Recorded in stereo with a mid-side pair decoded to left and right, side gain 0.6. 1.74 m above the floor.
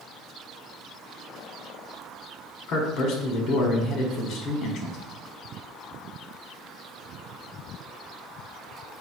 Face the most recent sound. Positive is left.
turn(degrees=60)